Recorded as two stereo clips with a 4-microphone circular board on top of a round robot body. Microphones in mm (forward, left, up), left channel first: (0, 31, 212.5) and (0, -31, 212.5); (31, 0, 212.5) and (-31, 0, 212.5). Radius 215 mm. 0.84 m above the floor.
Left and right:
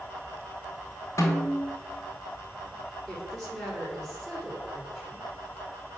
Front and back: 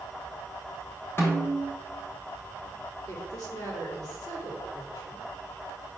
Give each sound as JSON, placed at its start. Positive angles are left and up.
{"t": 1.2, "sound": "a snare drum", "azimuth_deg": 50, "distance_m": 1.4}
{"t": 3.1, "sound": "a woman speaking", "azimuth_deg": 5, "distance_m": 2.5}